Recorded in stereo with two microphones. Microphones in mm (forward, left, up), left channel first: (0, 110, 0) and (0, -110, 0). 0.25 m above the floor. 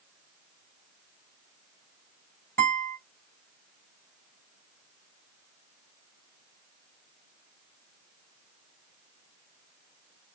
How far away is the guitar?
About 1.8 m.